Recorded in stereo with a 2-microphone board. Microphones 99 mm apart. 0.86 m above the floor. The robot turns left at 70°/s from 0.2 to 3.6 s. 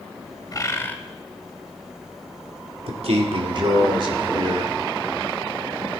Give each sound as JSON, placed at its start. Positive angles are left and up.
{"t": 0.5, "sound": "a bird", "azimuth_deg": 50, "distance_m": 0.9}
{"t": 2.9, "sound": "a man speaking", "azimuth_deg": -75, "distance_m": 2.0}